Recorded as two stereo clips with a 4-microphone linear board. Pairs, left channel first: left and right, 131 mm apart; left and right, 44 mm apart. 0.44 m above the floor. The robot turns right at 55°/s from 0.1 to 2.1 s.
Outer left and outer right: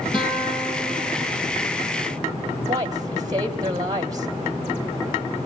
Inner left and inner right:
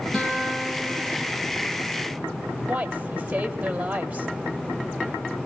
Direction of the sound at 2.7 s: 30° right (ahead or behind).